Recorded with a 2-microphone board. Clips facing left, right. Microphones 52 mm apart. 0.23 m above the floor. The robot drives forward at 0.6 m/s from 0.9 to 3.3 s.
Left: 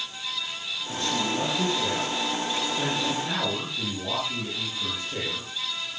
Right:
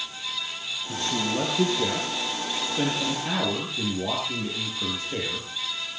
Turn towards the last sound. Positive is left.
turn(degrees=-25)  # may be behind; listen again after turning